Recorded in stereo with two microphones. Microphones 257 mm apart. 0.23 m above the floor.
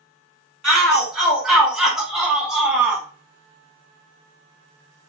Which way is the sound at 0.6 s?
Centre (ahead or behind).